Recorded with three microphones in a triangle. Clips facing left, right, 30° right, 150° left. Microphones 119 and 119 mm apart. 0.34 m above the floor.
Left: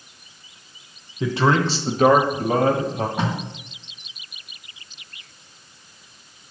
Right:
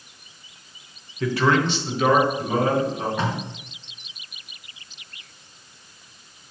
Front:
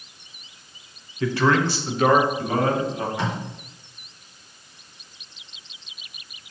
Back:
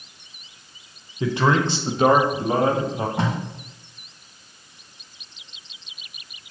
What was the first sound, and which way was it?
A man speaking, 125° left.